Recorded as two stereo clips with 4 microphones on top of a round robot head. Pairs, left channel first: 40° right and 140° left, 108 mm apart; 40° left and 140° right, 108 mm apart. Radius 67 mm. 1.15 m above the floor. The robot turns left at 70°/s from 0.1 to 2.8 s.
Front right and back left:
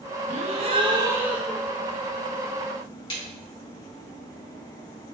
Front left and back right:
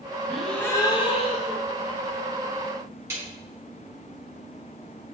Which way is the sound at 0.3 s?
135° left.